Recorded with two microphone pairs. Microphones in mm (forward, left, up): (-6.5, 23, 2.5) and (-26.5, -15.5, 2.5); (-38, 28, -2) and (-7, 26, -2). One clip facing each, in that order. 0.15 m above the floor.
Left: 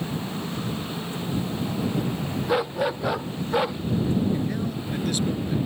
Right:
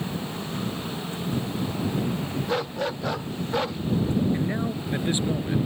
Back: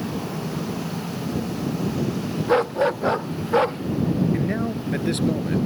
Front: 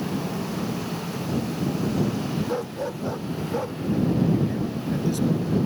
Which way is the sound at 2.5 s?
140° left.